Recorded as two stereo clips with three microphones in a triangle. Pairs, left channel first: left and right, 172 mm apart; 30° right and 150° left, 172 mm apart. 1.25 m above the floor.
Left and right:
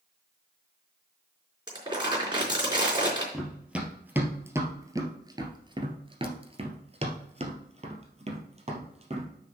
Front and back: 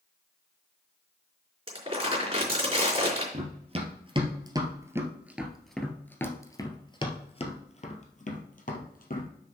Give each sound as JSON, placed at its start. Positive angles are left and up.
{"t": 1.7, "sound": "crumpling", "azimuth_deg": -155, "distance_m": 4.0}
{"t": 3.3, "sound": "running footsteps", "azimuth_deg": -175, "distance_m": 1.9}